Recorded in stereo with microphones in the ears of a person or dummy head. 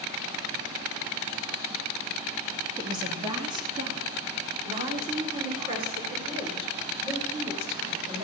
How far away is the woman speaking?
About 2 m.